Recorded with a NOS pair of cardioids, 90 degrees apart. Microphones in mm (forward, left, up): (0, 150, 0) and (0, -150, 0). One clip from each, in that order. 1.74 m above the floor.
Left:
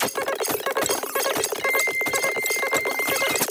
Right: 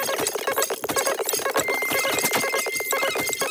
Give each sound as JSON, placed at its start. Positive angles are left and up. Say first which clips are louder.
{"t": 1.6, "sound": "a flute", "louder": "left 1 dB", "azimuth_deg": 30}